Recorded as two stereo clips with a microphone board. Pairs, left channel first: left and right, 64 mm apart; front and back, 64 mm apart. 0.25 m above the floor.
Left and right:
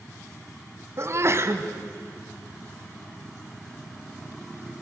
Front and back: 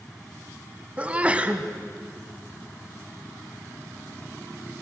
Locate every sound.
1.0 s a sneeze: 115° right, 1.5 m